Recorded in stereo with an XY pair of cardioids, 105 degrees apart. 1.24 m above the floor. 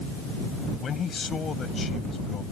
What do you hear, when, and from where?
0.8 s a man speaking: 45° left; by 2.4 s 40° left